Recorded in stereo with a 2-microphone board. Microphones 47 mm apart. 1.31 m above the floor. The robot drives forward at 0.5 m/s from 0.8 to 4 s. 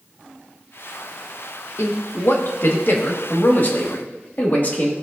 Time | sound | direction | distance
1.8 | a man speaking | 70° left (ahead or behind) | 1.3 m